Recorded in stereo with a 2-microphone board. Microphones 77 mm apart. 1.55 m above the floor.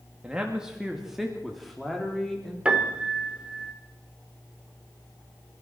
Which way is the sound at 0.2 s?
15° right (ahead or behind).